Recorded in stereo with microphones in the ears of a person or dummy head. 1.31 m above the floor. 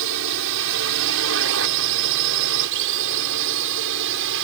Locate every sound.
0.0 s a drone: 70° right (ahead or behind)